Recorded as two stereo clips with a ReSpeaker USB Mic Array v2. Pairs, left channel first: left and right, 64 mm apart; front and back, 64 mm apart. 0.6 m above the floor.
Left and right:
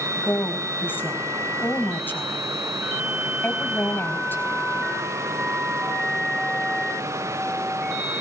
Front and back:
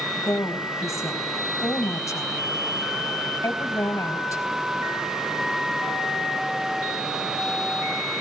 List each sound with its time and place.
0.1 s a woman speaking: 35° left, 4.5 m